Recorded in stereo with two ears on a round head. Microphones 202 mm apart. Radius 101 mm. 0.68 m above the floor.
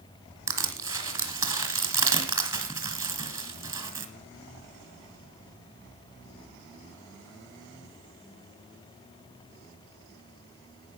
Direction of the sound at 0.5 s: 15° right (ahead or behind).